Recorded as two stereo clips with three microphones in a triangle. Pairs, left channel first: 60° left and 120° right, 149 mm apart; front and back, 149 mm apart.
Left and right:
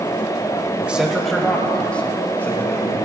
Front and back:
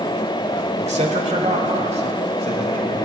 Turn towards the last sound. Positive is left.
turn(degrees=135)